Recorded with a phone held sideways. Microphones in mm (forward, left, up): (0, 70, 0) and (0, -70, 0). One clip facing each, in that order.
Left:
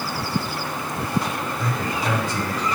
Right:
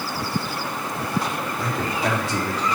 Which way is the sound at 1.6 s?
75° right (ahead or behind).